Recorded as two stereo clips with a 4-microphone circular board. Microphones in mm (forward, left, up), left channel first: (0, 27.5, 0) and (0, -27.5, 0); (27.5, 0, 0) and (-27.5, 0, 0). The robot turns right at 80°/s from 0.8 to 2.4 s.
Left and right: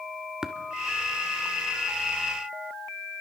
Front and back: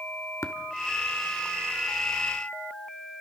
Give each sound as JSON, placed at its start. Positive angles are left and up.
{"t": 0.4, "sound": "tapping", "azimuth_deg": -15, "distance_m": 1.4}